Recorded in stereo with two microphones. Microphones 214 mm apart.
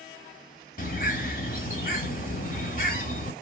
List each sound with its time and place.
0.8 s a bird: 40° left (ahead or behind), 1.1 m